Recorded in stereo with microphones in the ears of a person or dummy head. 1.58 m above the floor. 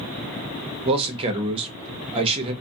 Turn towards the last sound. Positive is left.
turn(degrees=-30)  # may be behind; listen again after turning